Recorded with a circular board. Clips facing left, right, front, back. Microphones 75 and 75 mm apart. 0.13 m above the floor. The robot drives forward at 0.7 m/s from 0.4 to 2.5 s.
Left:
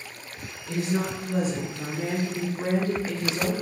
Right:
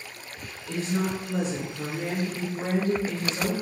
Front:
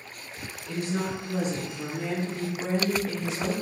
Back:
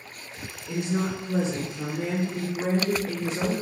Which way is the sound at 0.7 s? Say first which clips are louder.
Left 1 dB, back 2 dB; 150° left.